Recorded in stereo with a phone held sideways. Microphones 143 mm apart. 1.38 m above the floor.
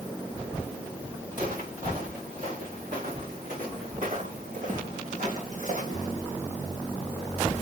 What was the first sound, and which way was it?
Footsteps, 75° right (ahead or behind).